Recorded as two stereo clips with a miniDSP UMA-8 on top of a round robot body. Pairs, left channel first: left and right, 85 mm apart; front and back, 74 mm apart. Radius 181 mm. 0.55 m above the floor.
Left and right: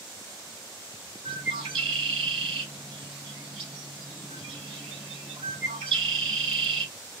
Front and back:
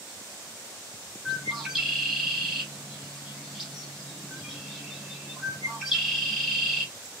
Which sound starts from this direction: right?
A bird, at 1.2 s.